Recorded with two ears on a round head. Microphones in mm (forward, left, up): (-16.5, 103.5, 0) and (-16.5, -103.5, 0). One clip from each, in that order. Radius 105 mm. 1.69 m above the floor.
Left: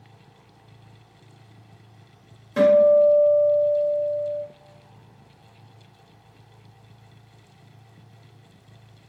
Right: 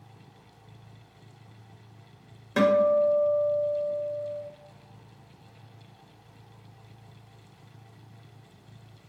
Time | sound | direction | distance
2.6 | a guitar | 30° right (ahead or behind) | 1.0 m